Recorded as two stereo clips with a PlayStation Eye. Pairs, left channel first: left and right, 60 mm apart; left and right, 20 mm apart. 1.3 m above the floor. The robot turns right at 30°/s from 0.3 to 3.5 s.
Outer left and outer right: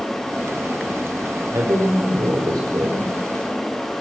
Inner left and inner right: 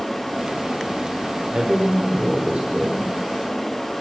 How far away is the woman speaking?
About 4 m.